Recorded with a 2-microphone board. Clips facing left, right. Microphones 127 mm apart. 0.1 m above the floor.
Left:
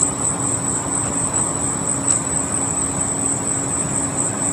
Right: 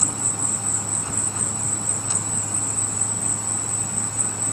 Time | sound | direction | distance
0.0 | an insect | 85° left | ?